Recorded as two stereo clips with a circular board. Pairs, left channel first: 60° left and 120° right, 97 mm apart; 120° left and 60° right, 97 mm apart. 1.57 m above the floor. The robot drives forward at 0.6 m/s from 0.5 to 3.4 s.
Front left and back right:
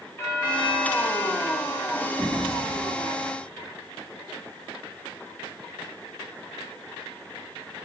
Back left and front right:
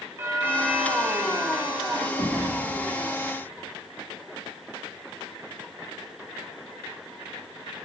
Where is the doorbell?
Straight ahead, 2.0 m.